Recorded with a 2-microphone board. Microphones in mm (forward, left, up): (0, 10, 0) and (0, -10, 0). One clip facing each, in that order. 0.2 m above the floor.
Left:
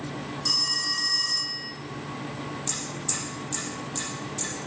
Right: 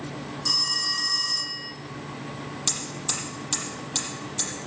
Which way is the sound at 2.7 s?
45° right (ahead or behind).